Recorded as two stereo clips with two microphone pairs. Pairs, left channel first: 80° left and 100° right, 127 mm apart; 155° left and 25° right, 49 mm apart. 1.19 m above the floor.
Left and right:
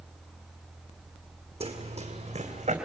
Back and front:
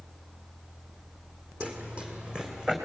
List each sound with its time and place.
1.6 s running footsteps: 80° right, 2.5 m; by 2.8 s 95° right, 3 m